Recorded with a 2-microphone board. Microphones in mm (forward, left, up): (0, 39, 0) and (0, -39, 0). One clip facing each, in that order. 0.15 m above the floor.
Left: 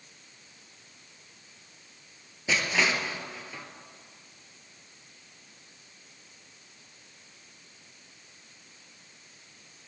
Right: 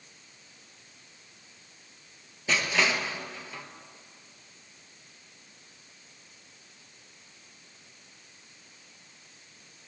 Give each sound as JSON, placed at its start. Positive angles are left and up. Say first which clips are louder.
{"t": 2.5, "sound": "crushing", "louder": "even", "side_deg": 10, "distance_m": 1.3}